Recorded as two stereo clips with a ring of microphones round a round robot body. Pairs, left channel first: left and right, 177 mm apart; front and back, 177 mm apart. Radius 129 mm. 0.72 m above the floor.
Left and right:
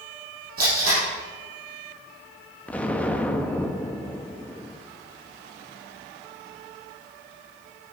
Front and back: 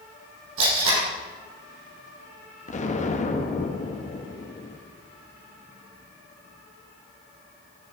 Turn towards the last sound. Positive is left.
turn(degrees=10)